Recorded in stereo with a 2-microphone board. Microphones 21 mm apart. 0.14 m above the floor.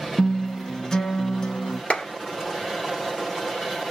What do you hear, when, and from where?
0.2 s a guitar: 30° left (ahead or behind), 1.6 m
1.9 s a clap: 55° left (ahead or behind), 2.0 m